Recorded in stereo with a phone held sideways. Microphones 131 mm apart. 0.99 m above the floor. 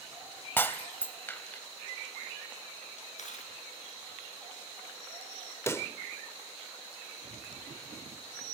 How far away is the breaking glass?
About 0.8 m.